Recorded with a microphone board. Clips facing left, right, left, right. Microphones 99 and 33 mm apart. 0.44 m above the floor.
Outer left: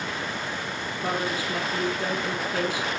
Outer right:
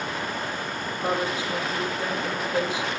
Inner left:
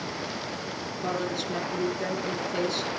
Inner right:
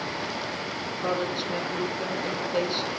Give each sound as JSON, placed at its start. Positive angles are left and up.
{"t": 1.0, "sound": "a woman speaking", "side_deg": -20, "distance_m": 5.0}